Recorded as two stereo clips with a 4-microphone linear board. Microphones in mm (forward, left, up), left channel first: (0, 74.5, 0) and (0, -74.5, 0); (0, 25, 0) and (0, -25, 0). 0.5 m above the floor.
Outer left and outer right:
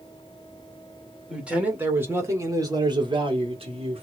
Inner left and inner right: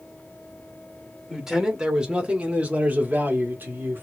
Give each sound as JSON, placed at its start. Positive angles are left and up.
{"t": 1.3, "sound": "a man speaking", "side_deg": -5, "distance_m": 1.7}